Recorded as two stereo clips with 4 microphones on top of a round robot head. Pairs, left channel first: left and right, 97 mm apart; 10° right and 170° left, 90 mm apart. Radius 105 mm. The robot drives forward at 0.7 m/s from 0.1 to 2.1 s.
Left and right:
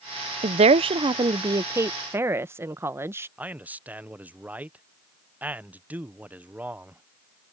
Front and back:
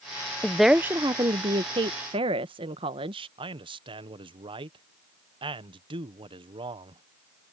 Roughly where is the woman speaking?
Right.